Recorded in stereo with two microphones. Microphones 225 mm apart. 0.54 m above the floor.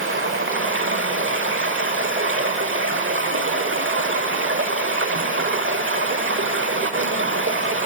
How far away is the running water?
About 1.1 m.